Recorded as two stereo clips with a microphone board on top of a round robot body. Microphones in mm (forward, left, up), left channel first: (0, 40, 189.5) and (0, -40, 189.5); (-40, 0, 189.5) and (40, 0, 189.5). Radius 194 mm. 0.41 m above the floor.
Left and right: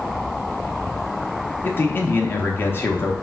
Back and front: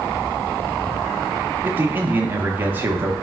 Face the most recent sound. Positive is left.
turn(degrees=50)